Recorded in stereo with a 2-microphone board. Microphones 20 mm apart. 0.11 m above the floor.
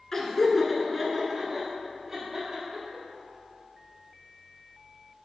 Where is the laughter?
20° left (ahead or behind), 1.3 m; by 3.0 s 30° right (ahead or behind), 3 m.